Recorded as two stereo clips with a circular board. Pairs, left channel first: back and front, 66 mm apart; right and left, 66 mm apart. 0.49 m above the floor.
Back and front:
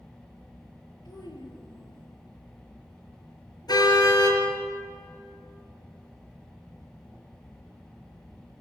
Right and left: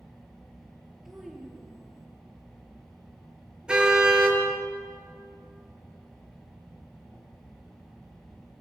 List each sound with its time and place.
1.1 s a child speaking: 175° left, 6 m; by 2.1 s straight behind, 6 m
3.7 s a car horn: 165° left, 5 m